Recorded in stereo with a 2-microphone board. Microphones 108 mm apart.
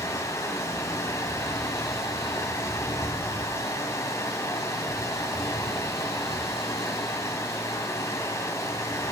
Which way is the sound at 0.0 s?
30° left (ahead or behind).